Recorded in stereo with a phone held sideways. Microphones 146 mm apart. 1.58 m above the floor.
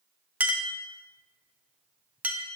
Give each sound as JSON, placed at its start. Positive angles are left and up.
{"t": 0.4, "sound": "a clink", "side_deg": -10, "distance_m": 0.5}